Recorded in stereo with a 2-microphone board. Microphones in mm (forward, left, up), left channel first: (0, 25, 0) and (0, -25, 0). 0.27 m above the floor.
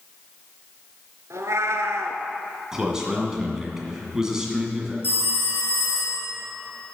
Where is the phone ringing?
35° right (ahead or behind), 3 m.